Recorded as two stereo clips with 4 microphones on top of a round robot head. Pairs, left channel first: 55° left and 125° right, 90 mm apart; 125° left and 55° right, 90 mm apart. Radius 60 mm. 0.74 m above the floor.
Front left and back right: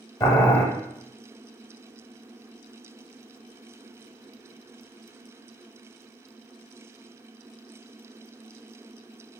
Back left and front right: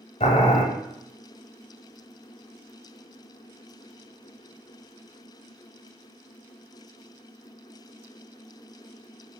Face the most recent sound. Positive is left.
turn(degrees=105)